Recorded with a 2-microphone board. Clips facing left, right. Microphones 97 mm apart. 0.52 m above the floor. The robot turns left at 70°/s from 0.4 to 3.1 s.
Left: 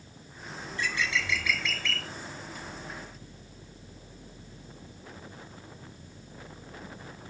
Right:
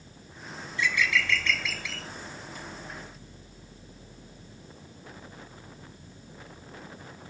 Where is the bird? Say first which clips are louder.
Right 4 dB; 65° left, 0.5 m; by 2.1 s 30° right, 0.5 m.